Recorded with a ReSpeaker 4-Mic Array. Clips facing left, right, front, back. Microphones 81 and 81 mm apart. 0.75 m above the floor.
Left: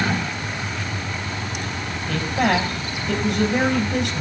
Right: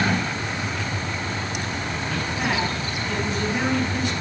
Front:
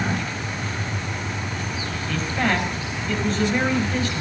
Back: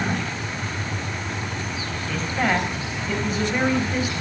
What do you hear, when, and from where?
2.1 s a man speaking: 100° left, 4.5 m